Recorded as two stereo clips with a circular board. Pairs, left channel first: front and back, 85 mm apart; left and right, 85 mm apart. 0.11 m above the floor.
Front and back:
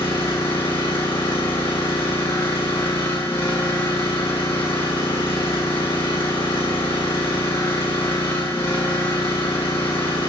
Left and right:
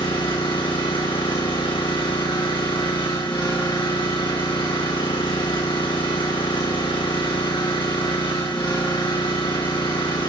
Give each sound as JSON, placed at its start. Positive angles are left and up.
{"t": 0.0, "sound": "an engine running", "azimuth_deg": 65, "distance_m": 3.5}